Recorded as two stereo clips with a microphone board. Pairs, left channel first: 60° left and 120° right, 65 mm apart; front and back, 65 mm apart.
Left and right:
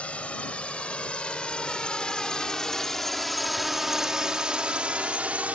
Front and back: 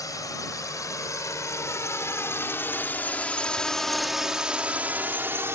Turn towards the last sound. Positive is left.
turn(degrees=-175)